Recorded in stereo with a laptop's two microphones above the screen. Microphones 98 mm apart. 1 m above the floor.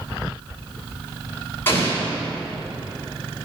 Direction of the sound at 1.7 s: 20° left (ahead or behind).